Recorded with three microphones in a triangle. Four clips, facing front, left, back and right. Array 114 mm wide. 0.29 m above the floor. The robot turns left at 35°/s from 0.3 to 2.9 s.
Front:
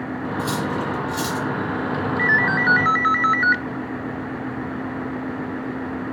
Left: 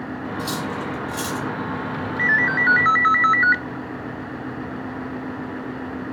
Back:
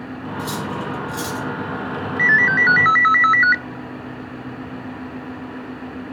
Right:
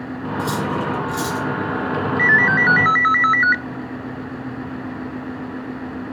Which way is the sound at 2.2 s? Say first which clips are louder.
Right 3 dB, back 4 dB; 130° right.